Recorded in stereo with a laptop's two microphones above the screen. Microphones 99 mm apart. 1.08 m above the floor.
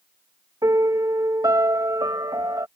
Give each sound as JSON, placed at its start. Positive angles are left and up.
{"t": 0.6, "sound": "a piano", "side_deg": -40}